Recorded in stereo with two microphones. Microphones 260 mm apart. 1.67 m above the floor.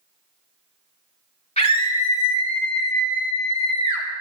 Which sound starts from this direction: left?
A scream, at 1.6 s.